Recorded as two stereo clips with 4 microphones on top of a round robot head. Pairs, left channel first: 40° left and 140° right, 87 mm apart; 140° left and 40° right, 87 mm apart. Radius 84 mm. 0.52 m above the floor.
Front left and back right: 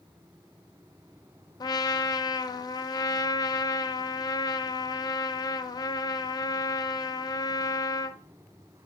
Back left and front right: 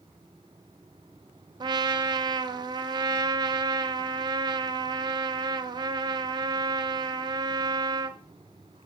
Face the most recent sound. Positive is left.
turn(degrees=0)